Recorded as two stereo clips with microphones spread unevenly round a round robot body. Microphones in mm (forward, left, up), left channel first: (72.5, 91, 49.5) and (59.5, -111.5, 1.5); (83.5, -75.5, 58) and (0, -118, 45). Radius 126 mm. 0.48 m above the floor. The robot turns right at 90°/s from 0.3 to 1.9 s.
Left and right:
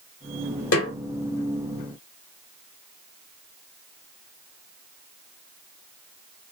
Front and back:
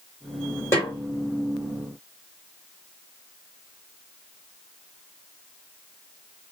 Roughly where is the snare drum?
Left.